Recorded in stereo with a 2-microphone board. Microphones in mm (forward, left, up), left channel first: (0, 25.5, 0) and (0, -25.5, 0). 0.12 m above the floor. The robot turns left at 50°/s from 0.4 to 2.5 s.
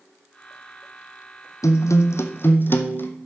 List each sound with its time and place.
1.6 s a guitar: 90° left, 1.4 m; by 3.1 s 45° left, 1.4 m